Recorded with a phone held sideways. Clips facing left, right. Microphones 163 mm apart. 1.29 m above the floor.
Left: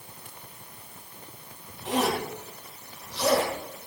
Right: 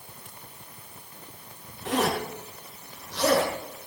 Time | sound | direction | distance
1.9 | a zipper | 80° right | 9.5 m